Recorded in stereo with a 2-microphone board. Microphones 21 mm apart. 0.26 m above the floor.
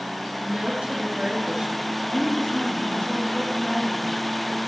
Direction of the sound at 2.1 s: 70° left (ahead or behind).